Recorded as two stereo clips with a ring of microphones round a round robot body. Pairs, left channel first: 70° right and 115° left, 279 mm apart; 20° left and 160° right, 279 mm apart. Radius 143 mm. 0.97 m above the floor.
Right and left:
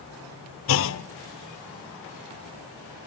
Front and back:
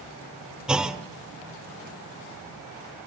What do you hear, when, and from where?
0.7 s a clunk: 70° right, 0.8 m